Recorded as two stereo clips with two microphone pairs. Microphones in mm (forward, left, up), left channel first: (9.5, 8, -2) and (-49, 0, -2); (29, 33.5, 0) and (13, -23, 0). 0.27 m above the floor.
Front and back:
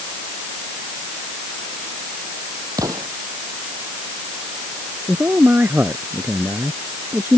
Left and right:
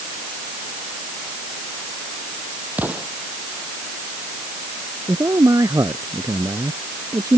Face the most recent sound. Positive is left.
turn(degrees=-120)